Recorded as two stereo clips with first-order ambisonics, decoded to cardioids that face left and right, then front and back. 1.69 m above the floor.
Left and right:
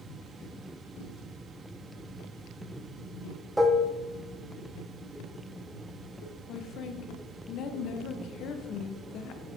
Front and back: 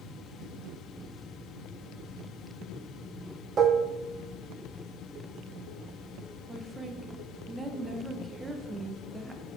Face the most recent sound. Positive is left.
turn(degrees=105)